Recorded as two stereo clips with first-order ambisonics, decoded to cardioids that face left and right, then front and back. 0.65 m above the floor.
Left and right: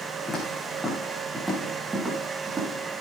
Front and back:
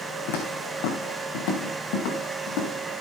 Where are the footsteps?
10° left, 3 m; by 2.7 s 20° right, 6 m.